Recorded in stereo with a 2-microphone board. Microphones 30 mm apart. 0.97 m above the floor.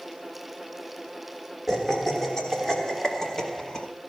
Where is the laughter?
15° left (ahead or behind), 3 m; by 3.9 s 30° left (ahead or behind), 1.8 m.